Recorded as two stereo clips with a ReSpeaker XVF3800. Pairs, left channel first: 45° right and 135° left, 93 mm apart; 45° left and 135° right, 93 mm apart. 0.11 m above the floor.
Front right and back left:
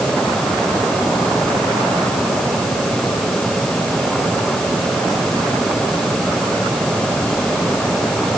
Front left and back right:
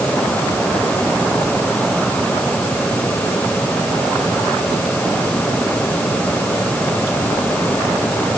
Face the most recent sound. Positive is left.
No sound to turn to.